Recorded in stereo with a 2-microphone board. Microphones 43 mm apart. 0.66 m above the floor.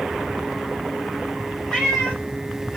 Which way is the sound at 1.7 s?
15° left (ahead or behind).